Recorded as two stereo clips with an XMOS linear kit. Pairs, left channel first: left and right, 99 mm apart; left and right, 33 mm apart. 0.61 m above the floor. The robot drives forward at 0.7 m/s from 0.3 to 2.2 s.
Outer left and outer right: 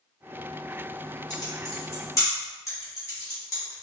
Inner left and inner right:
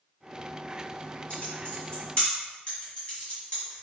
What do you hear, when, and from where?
1.3 s typing on a keyboard: 45° left (ahead or behind), 1.9 m; by 3.8 s 30° left (ahead or behind), 2.5 m